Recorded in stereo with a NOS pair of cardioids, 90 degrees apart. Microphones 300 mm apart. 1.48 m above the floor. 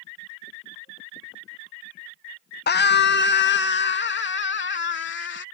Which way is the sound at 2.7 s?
35° left.